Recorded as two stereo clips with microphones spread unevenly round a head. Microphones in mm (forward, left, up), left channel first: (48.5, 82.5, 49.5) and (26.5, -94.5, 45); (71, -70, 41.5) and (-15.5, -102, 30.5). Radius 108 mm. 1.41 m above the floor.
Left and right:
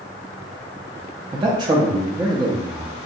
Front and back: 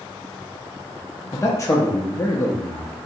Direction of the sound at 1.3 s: 35° right.